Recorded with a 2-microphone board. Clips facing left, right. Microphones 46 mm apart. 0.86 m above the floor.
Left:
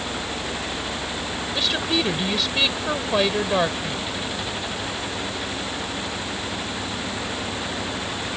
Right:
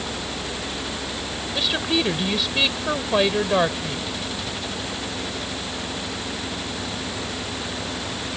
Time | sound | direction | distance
1.5 | a woman speaking | 5° right (ahead or behind) | ?